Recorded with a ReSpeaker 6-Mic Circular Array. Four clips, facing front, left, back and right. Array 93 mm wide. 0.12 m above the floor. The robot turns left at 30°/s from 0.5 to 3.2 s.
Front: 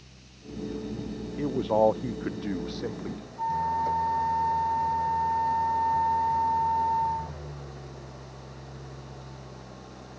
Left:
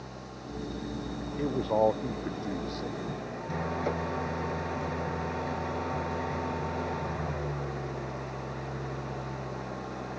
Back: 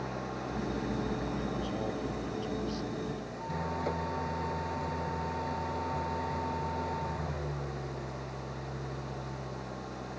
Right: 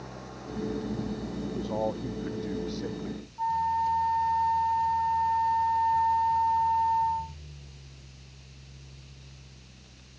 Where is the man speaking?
35° left; by 3.2 s 20° right.